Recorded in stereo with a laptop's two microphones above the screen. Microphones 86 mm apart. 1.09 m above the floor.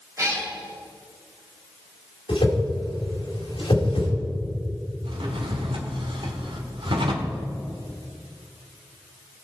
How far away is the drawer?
About 1.6 m.